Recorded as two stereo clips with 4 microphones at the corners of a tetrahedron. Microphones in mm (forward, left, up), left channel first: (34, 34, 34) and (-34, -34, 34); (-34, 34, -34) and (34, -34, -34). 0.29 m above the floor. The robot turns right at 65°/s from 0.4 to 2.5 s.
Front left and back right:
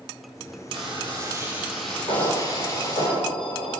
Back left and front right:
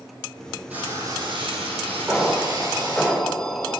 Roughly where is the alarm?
Ahead.